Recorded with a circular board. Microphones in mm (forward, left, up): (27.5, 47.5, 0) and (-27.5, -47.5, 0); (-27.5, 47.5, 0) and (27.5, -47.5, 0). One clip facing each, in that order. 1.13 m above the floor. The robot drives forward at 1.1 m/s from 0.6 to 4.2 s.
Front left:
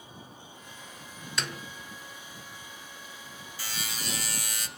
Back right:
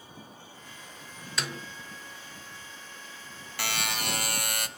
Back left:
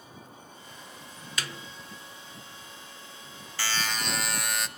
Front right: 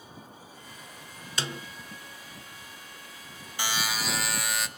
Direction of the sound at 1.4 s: 30° right.